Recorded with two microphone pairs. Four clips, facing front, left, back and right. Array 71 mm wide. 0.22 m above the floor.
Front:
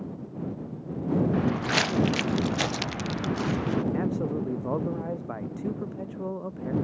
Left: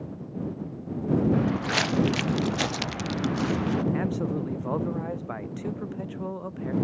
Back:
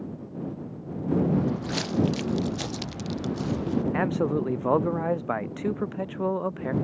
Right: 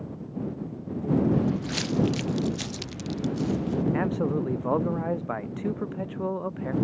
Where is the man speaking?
170° right.